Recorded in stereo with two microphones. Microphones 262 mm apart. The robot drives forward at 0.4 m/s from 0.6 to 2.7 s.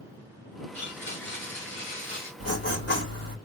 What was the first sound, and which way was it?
A blender, 45° left (ahead or behind).